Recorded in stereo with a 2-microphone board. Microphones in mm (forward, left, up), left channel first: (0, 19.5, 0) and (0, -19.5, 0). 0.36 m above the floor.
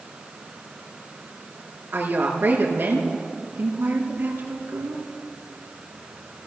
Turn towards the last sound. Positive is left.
turn(degrees=-65)  # may be behind; listen again after turning